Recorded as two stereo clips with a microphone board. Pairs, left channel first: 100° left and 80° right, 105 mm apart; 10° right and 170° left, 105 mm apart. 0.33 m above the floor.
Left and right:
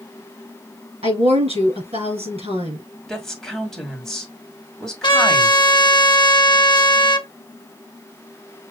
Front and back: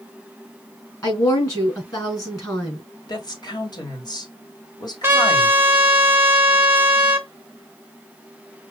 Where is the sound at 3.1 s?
15° left, 1.8 m.